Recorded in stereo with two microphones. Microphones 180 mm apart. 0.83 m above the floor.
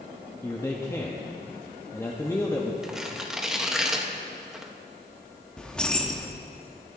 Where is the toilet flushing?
I don't hear a toilet flushing.